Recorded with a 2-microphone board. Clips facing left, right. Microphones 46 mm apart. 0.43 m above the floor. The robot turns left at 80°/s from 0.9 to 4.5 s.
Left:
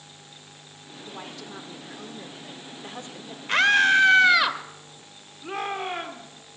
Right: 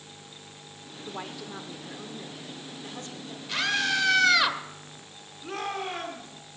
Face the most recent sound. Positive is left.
turn(degrees=20)  # may be behind; listen again after turning